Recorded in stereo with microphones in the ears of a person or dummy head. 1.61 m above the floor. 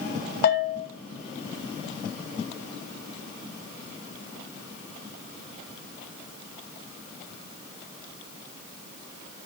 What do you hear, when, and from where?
0.4 s a bell: 60° left (ahead or behind), 1.0 m